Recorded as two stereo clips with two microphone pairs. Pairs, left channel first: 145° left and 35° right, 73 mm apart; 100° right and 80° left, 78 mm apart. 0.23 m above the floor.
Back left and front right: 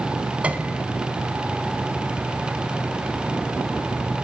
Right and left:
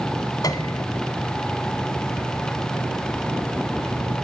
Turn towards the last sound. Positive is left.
turn(degrees=-105)